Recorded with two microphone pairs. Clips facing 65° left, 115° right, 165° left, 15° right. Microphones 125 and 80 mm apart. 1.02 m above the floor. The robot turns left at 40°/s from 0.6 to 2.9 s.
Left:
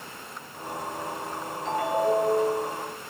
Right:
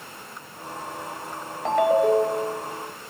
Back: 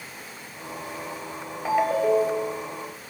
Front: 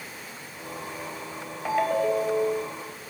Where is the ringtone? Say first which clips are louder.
Right 6 dB, back 2 dB; 110° right, 2.5 m; by 2.6 s 145° right, 2.5 m.